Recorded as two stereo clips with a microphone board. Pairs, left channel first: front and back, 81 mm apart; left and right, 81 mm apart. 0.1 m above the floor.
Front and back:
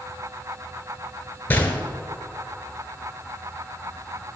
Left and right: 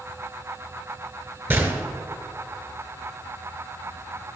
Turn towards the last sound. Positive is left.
turn(degrees=-50)